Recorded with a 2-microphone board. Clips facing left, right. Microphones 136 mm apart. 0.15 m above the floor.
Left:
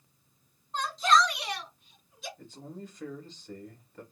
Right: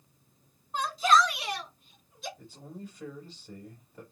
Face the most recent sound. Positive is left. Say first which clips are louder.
# left 1 dB
turn(degrees=-10)  # may be behind; listen again after turning